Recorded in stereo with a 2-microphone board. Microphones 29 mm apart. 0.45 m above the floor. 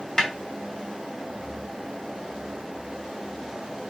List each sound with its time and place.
0.2 s a snare drum: 15° left (ahead or behind), 2.5 m